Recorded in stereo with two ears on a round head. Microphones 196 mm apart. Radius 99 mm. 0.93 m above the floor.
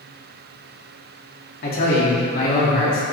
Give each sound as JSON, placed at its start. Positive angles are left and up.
{"t": 1.6, "sound": "a man speaking", "side_deg": 45, "distance_m": 2.5}